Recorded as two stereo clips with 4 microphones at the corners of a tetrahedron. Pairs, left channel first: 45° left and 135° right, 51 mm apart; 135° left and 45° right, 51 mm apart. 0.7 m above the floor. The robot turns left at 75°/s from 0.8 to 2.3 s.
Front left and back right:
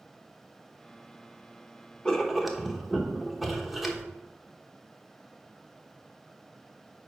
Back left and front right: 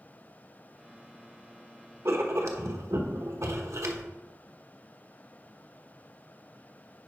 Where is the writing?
25° right, 1.0 m; by 4.0 s 45° right, 1.0 m.